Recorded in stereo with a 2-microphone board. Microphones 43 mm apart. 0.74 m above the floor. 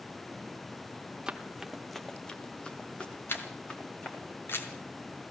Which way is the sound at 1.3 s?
15° right (ahead or behind).